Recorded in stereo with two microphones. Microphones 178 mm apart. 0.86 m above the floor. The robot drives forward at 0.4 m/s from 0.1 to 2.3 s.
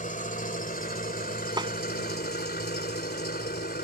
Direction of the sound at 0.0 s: 50° left (ahead or behind).